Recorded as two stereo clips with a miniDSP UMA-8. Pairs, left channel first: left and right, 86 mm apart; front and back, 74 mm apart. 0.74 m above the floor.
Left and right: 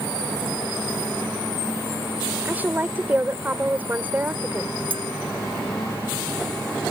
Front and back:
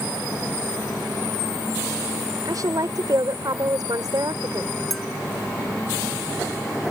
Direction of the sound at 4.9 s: 85° right.